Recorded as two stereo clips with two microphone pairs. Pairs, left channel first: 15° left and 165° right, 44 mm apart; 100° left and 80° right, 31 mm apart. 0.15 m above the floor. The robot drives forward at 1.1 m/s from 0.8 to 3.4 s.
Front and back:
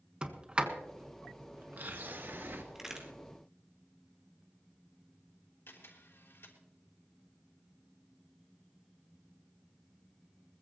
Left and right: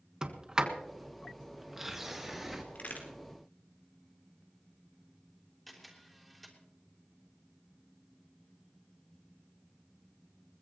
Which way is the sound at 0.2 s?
115° right.